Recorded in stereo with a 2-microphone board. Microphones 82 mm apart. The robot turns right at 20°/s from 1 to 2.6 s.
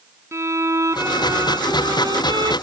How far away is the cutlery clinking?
No cutlery clinking in this recording.